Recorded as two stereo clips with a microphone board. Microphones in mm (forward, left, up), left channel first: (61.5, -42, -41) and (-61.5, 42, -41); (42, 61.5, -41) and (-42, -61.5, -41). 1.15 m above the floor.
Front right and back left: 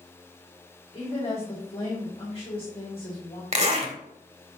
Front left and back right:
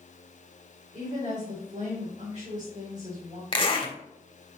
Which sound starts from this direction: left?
A zipper, at 3.5 s.